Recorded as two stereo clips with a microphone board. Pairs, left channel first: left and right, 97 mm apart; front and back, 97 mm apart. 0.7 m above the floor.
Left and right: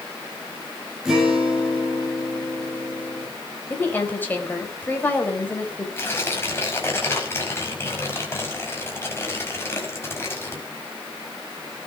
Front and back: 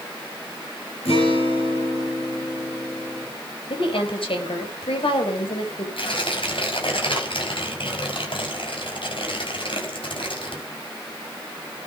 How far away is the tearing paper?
About 5 m.